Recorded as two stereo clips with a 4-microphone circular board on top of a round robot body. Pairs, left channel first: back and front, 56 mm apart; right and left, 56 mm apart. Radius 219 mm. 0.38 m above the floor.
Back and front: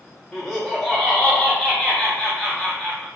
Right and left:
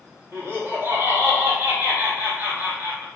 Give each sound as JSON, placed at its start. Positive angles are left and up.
{"t": 0.3, "sound": "laughter", "azimuth_deg": 95, "distance_m": 1.2}